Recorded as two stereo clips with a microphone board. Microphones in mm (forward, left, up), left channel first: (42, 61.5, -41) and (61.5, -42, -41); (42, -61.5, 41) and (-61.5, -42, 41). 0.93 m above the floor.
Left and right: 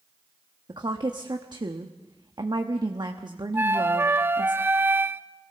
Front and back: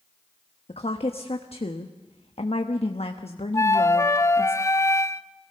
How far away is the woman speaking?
About 1.1 m.